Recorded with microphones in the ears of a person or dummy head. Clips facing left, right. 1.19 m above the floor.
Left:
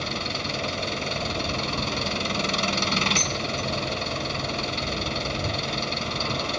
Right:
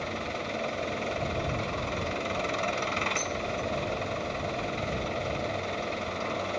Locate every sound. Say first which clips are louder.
0.0 s an engine running: left 2 dB; 50° left (ahead or behind)
3.2 s dishes clattering: left 2 dB; 90° left